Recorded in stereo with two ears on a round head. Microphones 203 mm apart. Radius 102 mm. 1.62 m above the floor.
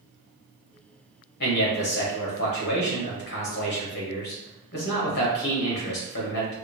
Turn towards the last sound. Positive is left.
turn(degrees=45)  # may be behind; listen again after turning